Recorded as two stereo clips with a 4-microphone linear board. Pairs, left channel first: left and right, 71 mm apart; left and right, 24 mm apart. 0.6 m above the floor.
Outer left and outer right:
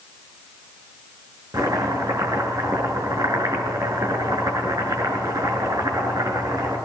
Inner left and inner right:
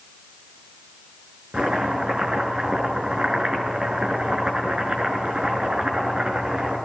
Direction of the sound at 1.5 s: 55° right (ahead or behind).